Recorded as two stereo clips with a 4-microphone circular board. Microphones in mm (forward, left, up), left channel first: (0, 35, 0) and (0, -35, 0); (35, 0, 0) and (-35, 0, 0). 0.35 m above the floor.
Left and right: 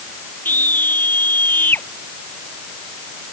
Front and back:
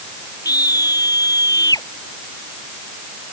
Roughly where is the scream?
Ahead left.